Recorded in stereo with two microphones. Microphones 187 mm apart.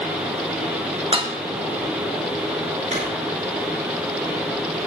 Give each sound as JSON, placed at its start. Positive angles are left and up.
{"t": 1.1, "sound": "dishes clattering", "side_deg": -25, "distance_m": 1.2}
{"t": 2.9, "sound": "a drawer", "side_deg": -40, "distance_m": 6.0}